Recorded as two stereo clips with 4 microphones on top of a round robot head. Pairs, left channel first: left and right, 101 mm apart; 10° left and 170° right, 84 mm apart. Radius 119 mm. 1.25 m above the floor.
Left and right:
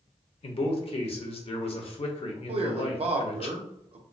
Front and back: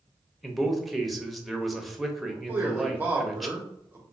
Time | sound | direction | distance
0.4 | a man speaking | 100° left | 0.8 m
2.5 | a man speaking | 100° right | 0.8 m